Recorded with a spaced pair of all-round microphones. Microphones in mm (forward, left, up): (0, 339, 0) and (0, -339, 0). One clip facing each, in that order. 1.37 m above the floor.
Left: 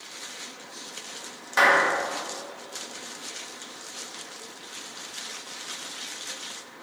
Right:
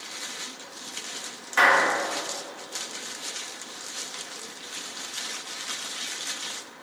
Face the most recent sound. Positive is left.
turn(degrees=65)  # may be behind; listen again after turning